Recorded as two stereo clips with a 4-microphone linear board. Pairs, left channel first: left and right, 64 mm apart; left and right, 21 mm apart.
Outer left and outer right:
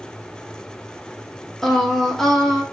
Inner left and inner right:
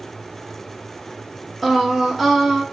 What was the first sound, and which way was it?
Singing, 5° left (ahead or behind).